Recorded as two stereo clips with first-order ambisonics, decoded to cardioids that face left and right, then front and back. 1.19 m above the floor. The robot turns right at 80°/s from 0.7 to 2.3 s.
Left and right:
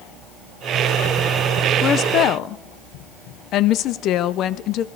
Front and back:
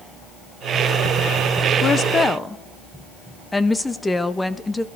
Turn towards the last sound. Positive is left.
turn(degrees=75)